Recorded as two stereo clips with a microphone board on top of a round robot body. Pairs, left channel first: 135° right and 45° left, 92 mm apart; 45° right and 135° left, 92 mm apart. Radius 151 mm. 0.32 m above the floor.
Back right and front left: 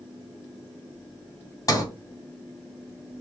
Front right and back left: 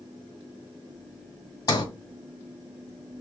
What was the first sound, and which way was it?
A sliding door, 90° right.